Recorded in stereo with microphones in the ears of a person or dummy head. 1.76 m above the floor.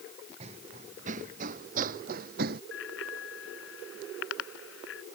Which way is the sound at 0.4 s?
40° right (ahead or behind).